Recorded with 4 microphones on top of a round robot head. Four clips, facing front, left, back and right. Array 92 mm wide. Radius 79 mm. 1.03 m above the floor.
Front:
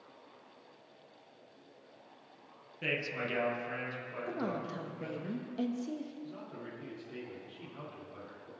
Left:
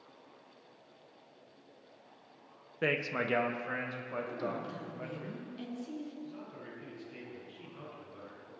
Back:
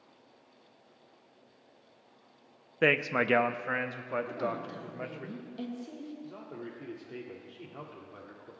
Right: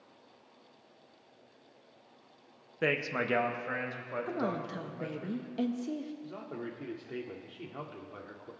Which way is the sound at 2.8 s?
175° right.